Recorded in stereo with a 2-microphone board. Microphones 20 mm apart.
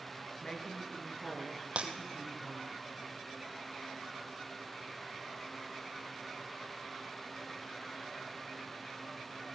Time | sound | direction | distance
0.4 | a woman speaking | 30° left (ahead or behind) | 2.0 m
1.8 | breaking glass | 75° right (ahead or behind) | 1.2 m